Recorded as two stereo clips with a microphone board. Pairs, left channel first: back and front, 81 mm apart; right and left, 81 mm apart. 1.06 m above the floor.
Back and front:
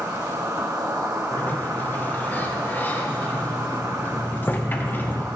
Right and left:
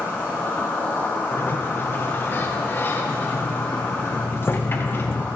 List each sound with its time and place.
0.0 s an insect: 30° right, 4 m
1.3 s a sliding door: 130° right, 0.8 m